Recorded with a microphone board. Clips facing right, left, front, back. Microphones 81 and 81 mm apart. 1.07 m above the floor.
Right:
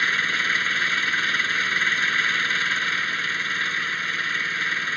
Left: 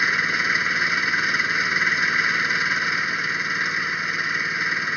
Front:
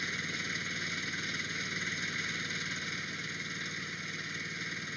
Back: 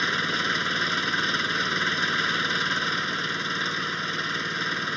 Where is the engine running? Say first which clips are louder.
Left 2 dB, back 13 dB; 165° left.